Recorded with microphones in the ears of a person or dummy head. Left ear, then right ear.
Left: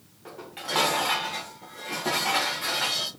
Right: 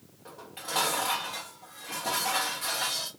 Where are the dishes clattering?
5° right (ahead or behind), 0.7 m.